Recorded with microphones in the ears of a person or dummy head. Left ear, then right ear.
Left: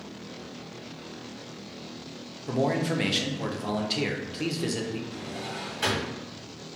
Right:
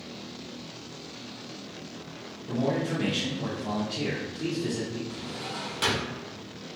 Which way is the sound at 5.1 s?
35° right (ahead or behind).